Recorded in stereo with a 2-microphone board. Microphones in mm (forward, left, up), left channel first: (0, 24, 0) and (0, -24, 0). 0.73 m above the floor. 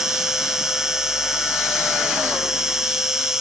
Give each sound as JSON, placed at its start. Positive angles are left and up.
{"t": 0.0, "sound": "an insect", "side_deg": -15}